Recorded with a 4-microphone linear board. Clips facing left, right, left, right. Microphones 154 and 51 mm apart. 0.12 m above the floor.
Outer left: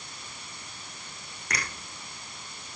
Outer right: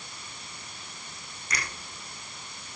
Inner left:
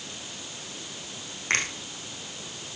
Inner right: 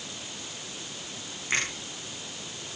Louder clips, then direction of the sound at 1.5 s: Outer left 1 dB, inner left 2 dB; 65° left (ahead or behind).